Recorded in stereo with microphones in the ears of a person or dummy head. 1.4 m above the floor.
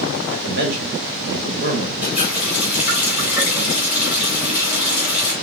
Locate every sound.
0.3 s a man speaking: 55° right (ahead or behind), 1.9 m
2.0 s a running tap: 10° right (ahead or behind), 3.5 m